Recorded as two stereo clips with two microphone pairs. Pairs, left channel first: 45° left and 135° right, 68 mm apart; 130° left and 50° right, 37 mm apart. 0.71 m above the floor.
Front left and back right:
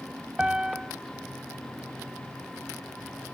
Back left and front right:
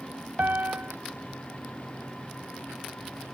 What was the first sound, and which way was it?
A piano, 60° right.